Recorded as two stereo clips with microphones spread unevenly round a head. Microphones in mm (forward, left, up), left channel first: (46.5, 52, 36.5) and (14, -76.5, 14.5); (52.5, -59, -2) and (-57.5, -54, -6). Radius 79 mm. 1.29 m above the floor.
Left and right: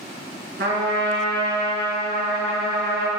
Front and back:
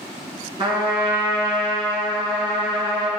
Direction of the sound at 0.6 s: 135° right.